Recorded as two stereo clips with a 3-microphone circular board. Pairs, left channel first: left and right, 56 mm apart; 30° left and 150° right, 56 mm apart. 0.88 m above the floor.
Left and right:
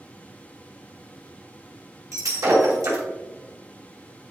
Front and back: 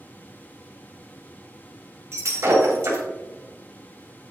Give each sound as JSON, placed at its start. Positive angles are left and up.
{"t": 2.1, "sound": "breaking glass", "azimuth_deg": -110, "distance_m": 3.0}